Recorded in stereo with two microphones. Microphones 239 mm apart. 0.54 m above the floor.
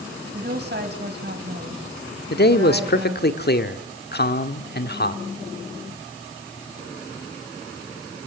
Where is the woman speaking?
45° right (ahead or behind), 4 m.